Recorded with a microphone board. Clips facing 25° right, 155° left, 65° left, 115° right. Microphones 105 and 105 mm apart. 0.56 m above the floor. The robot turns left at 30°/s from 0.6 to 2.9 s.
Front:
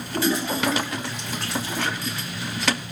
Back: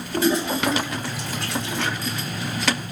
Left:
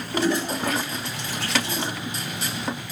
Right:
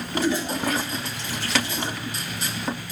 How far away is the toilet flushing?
About 1.3 m.